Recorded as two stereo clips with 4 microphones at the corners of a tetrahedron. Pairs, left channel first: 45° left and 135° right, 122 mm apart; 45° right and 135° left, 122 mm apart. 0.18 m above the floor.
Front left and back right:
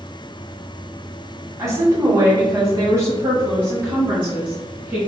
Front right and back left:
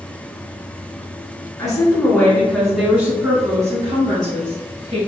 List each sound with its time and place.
1.6 s a woman speaking: 85° right, 1.9 m; by 5.0 s 150° left, 2.5 m